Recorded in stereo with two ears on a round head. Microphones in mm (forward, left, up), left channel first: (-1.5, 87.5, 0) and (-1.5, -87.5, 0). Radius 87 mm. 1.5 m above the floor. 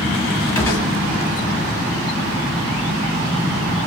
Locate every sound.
0.6 s a gunshot: 15° left (ahead or behind), 1.6 m